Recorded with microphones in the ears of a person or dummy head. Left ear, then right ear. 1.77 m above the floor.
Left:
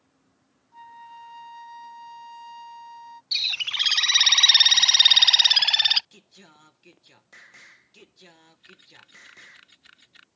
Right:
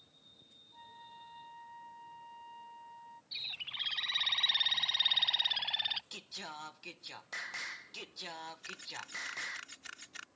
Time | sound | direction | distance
0.7 | a flute | 45° left (ahead or behind) | ?
3.3 | a bird | 65° left (ahead or behind) | ?
6.1 | singing | 20° right (ahead or behind) | ?
8.6 | a camera shutter | 35° right (ahead or behind) | ?